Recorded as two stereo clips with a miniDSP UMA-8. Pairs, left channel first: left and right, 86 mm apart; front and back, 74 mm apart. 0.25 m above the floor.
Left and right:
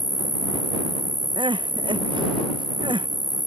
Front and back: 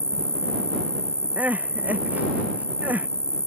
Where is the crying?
110° right.